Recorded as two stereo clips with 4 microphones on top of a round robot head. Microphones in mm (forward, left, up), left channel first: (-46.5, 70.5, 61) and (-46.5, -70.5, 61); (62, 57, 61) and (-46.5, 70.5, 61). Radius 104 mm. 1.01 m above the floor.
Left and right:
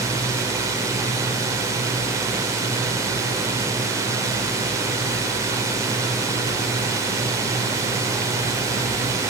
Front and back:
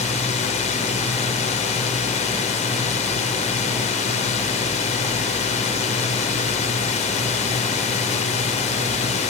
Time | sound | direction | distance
0.0 | a drone | 20° right | ?